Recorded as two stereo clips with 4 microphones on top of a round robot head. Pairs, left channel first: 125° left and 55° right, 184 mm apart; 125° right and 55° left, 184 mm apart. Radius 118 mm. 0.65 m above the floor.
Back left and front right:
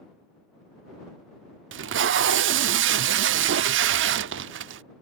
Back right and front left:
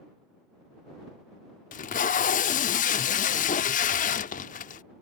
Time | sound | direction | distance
1.7 | tape being pulled | 75° right | ?